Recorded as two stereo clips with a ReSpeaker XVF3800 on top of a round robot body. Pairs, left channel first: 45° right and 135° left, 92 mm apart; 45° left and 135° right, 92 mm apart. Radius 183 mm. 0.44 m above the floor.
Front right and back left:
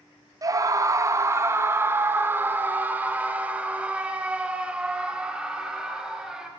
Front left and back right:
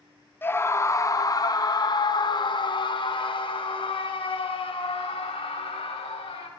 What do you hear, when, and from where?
0.4 s a scream: 105° left, 1.8 m; by 6.5 s 55° left, 5 m